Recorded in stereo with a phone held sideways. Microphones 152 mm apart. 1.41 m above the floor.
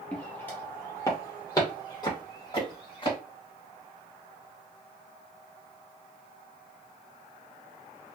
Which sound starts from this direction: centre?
Footsteps, at 0.1 s.